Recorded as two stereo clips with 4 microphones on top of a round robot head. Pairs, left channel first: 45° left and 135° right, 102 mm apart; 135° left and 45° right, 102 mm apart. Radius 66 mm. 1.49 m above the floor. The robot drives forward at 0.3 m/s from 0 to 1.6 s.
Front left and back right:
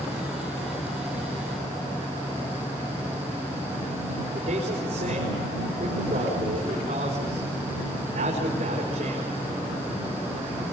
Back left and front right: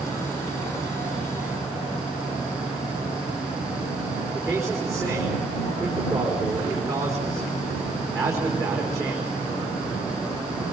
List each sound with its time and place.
4.3 s a man speaking: 105° right, 4.5 m